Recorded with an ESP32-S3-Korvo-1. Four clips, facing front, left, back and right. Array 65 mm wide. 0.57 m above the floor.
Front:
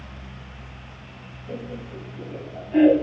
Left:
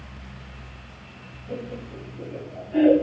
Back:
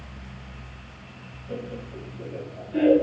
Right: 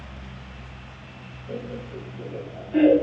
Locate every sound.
1.5 s laughter: 20° left, 4 m; by 2.9 s 15° left, 3.5 m